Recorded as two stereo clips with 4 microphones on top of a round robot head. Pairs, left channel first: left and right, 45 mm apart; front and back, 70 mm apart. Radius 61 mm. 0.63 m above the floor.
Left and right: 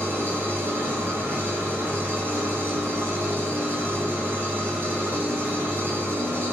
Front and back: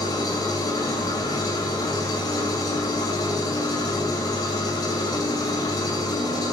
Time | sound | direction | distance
0.0 | an engine running | 40° right | 2.5 m